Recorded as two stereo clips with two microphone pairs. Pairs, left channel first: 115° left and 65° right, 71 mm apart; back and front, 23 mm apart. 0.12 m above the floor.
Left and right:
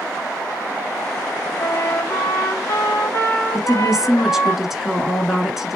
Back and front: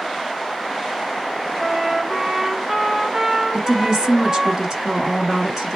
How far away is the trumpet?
About 2.5 m.